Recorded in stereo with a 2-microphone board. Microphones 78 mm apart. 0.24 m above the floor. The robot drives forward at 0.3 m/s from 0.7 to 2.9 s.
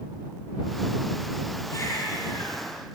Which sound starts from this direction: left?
A baby crying, at 1.7 s.